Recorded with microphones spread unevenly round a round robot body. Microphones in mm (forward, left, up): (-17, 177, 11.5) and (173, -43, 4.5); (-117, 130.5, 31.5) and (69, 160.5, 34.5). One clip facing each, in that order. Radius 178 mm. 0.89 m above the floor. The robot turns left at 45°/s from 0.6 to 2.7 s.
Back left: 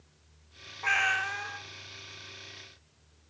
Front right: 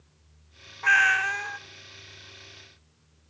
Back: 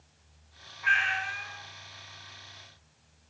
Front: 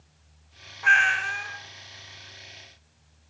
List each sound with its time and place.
0.8 s a cat meowing: 15° left, 0.8 m; by 1.6 s 20° right, 0.8 m